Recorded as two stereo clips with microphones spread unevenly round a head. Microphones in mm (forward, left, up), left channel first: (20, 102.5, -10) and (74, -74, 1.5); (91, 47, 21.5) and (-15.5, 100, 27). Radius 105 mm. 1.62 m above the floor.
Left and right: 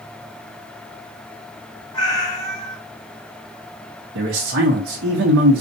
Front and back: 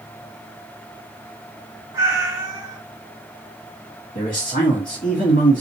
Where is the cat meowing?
155° left, 1.4 m.